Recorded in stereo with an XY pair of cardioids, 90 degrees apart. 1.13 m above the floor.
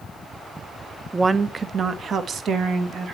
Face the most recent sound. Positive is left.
turn(degrees=-75)